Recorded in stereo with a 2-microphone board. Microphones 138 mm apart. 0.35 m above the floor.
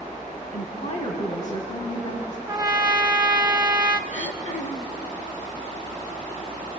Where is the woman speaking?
55° left (ahead or behind), 3 m; by 2.4 s 60° left (ahead or behind), 4 m.